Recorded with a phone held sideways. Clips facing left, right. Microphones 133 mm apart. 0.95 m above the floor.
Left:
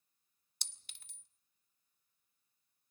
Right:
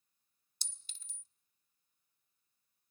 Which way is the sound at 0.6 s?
65° left (ahead or behind).